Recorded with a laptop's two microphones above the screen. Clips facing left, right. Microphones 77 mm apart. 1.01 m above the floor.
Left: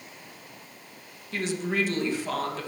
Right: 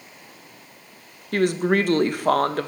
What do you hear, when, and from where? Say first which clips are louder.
1.3 s a woman speaking: right 8 dB; 60° right (ahead or behind), 0.7 m